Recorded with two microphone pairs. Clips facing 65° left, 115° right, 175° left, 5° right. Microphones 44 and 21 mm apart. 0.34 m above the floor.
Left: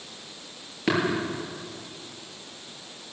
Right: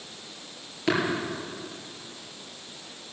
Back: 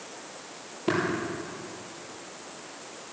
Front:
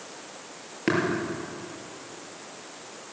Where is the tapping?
15° right, 6 m.